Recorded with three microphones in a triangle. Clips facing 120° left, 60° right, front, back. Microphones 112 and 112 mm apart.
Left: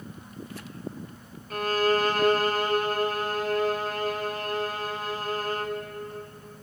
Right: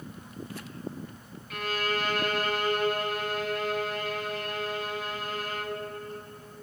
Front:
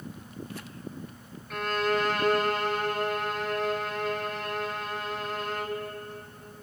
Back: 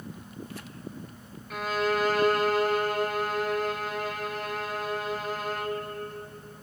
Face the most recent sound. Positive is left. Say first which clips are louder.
# left 7 dB, even
turn(degrees=95)